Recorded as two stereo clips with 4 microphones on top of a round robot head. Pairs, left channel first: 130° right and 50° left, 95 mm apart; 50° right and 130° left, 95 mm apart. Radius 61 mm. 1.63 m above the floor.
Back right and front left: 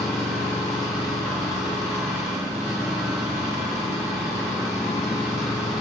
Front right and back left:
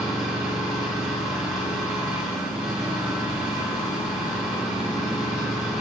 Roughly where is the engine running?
Ahead left.